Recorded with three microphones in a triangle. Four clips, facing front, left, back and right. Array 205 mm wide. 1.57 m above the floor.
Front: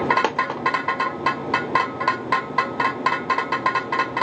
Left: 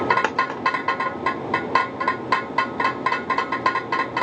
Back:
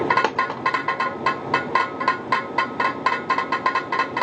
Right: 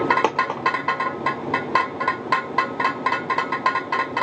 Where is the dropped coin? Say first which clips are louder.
Right 2 dB, even; 90° right, 1.0 m.